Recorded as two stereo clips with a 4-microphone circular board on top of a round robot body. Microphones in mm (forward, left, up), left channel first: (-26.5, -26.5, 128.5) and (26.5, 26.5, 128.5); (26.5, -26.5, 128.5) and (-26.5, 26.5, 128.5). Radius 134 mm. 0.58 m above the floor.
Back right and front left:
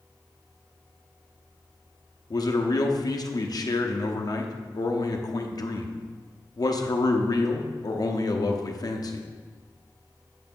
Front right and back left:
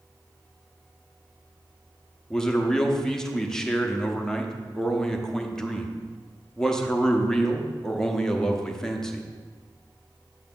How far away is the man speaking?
About 1.0 m.